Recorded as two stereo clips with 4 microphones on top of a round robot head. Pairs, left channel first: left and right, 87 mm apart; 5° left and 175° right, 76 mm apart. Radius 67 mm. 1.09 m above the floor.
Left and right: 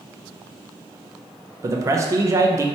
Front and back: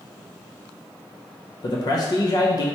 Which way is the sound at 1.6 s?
35° right.